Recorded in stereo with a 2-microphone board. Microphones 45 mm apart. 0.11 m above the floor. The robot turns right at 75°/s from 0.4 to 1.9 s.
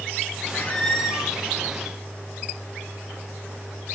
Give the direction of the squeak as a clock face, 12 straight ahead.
7 o'clock.